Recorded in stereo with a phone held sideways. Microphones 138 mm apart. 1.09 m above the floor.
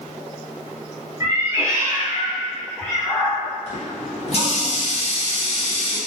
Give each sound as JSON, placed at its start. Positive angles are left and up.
{"t": 1.2, "sound": "a cat meowing", "side_deg": -30, "distance_m": 0.9}
{"t": 3.7, "sound": "a running tap", "side_deg": 50, "distance_m": 0.6}